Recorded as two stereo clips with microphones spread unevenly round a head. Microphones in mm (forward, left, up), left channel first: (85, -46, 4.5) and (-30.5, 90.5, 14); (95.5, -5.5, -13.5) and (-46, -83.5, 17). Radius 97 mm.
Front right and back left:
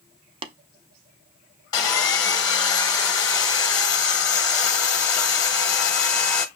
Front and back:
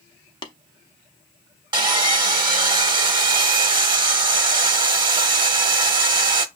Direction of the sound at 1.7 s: 115° right.